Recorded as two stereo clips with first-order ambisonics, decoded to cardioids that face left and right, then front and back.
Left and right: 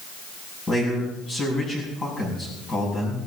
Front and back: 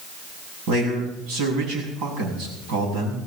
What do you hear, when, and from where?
0.7 s a man speaking: 160° left, 6 m